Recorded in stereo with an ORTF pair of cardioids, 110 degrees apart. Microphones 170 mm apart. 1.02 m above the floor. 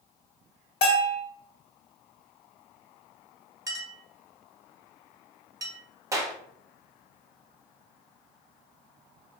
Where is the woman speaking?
No woman speaking in this recording.